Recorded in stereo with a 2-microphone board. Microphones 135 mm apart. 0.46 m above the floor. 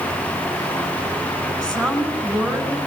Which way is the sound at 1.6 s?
5° left (ahead or behind).